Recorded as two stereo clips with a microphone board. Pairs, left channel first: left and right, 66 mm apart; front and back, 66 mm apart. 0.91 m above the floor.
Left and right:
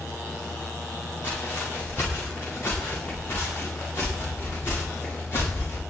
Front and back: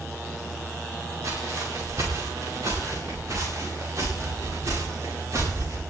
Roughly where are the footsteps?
Behind left.